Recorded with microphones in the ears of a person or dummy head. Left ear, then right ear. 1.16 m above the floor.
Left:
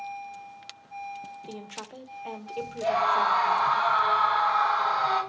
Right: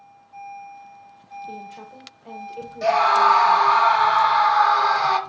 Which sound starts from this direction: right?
A scream, at 2.8 s.